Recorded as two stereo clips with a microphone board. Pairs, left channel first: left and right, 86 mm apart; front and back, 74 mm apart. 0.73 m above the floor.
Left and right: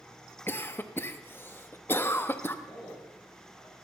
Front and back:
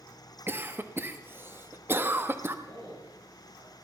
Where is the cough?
140° left, 0.9 m.